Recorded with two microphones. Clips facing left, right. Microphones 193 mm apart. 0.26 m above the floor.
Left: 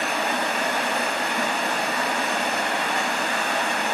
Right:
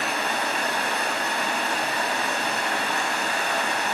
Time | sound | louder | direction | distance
0.0 | running water | left 2 dB | 80° left | 6 m